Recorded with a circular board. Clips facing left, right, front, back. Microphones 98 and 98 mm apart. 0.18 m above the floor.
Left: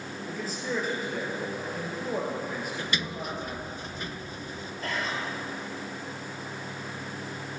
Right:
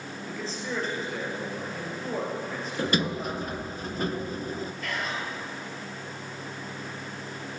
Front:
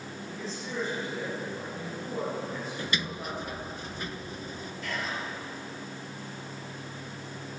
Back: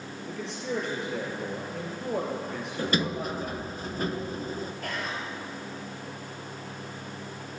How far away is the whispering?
About 4 m.